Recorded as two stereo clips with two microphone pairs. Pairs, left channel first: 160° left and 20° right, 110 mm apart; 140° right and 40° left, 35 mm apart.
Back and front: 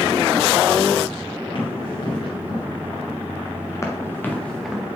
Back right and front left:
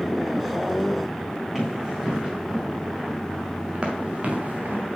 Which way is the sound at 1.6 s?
120° left.